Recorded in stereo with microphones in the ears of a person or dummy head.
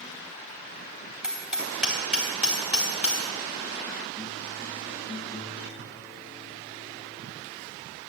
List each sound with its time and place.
1.2 s hammering: 10° right (ahead or behind), 4 m